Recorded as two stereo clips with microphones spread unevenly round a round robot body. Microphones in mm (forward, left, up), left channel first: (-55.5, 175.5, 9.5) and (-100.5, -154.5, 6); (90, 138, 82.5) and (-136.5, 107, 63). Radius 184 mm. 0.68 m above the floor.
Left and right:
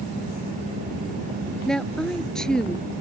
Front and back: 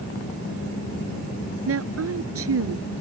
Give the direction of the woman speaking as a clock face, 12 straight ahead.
6 o'clock.